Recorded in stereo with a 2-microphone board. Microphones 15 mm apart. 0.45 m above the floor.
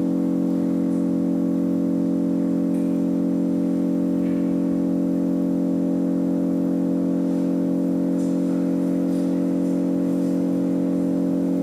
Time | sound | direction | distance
0.0 | an engine running | 45° right (ahead or behind) | 4 m